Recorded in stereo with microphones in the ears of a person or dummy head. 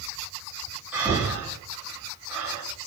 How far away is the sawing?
No sawing in this recording.